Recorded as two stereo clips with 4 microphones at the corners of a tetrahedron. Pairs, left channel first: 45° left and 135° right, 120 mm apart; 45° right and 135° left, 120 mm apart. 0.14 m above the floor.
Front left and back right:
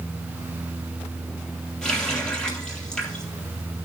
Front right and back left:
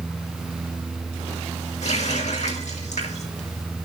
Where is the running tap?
40° right, 3.5 m.